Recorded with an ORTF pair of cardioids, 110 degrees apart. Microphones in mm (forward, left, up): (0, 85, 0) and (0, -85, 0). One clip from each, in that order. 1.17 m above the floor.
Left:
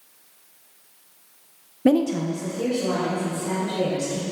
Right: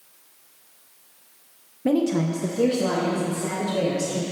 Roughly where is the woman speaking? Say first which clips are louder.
Left 2 dB; ahead left.